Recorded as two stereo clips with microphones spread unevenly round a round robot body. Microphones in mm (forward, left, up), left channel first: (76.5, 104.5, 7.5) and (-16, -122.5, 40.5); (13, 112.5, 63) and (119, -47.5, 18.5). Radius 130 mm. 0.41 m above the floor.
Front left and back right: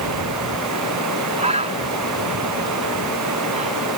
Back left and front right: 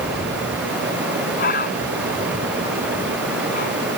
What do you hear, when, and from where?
0.0 s running water: 140° right
1.4 s a bird: straight behind